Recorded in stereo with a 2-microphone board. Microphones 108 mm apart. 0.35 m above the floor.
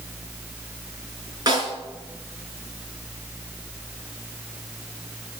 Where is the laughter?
No laughter in this recording.